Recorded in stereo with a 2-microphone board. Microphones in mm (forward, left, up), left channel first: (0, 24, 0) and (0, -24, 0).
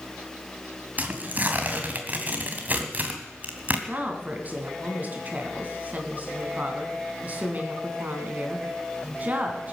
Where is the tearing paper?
40° right (ahead or behind), 2.0 m.